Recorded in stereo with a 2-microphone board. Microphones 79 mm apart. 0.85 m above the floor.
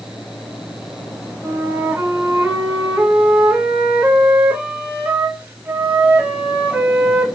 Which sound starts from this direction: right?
A flute, at 1.4 s.